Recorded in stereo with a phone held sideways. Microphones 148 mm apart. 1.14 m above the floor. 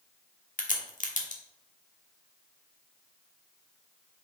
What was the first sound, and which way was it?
A crack, 60° left (ahead or behind).